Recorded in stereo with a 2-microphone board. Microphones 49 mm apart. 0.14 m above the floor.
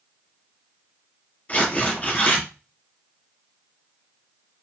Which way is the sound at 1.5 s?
30° left (ahead or behind).